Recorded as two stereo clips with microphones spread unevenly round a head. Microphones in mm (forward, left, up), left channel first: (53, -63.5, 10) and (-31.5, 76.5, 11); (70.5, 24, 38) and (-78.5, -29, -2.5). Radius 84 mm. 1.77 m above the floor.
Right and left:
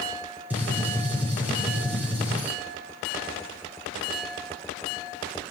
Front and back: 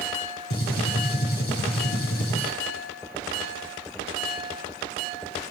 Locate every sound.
0.5 s a gunshot: 40° left, 6.5 m